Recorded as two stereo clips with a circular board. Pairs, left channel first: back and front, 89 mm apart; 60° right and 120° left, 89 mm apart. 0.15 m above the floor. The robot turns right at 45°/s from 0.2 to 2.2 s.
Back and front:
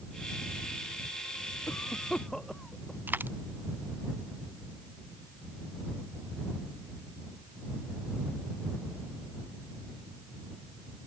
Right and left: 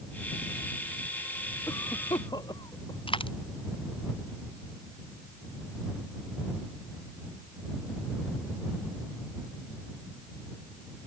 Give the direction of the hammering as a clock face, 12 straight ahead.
I don't hear hammering.